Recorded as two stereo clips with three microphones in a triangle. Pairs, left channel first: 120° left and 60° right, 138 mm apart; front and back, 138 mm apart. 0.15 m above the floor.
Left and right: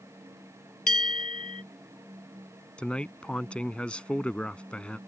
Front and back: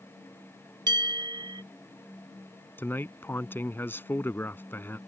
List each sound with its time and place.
0.9 s a bell: 125° left
2.8 s a man speaking: 50° left